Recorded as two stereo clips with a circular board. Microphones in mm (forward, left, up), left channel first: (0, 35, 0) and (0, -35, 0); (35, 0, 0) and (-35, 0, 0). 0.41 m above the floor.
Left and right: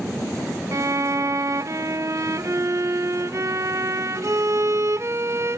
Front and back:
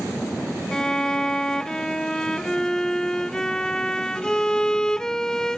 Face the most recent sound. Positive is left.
turn(degrees=-80)